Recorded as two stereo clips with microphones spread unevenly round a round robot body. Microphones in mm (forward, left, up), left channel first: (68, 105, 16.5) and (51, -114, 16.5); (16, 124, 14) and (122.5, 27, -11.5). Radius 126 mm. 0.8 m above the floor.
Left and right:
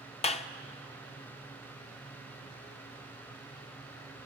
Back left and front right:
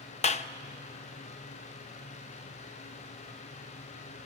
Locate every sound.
0.2 s a clap: 125° left, 0.5 m